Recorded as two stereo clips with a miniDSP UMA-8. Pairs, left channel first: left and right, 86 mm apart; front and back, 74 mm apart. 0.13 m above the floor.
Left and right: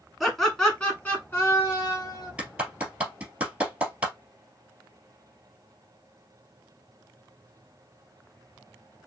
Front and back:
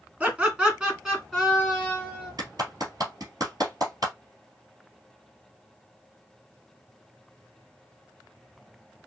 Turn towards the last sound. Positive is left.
turn(degrees=-160)